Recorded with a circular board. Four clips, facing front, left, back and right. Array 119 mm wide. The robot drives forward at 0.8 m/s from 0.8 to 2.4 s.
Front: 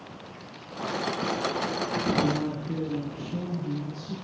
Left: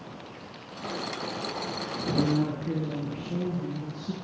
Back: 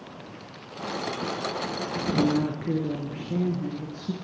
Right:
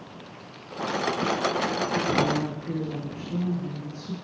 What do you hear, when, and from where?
2.1 s a woman speaking: 165° left, 4.5 m